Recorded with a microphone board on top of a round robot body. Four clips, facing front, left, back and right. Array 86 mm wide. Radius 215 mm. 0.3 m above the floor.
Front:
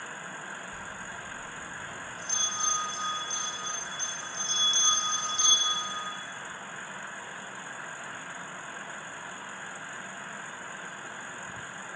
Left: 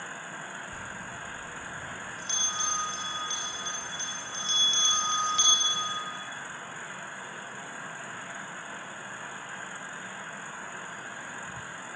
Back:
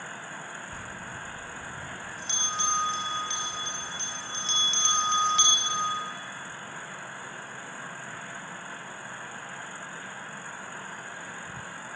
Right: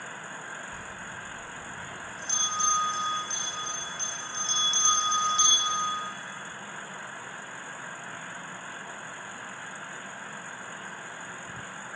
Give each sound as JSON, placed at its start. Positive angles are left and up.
{"t": 0.7, "sound": "a bell", "azimuth_deg": 160, "distance_m": 4.5}